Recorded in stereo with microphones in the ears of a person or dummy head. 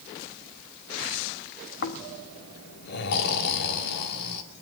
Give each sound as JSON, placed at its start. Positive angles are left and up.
{"t": 1.8, "sound": "snoring", "side_deg": 55, "distance_m": 1.9}